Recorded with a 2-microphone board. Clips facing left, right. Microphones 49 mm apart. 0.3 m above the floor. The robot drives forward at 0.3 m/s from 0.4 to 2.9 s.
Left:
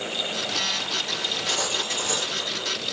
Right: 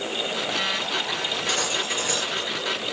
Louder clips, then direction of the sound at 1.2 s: Right 2 dB; 50° right (ahead or behind).